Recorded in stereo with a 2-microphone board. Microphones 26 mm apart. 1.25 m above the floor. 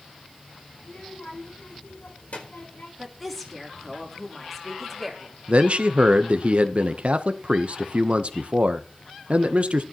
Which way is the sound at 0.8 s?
55° left (ahead or behind).